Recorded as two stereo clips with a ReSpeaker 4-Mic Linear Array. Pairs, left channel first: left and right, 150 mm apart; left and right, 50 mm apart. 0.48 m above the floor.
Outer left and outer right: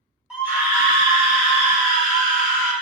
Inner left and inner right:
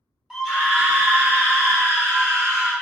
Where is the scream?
5° right (ahead or behind), 1.0 m; by 2.7 s 65° right (ahead or behind), 1.5 m.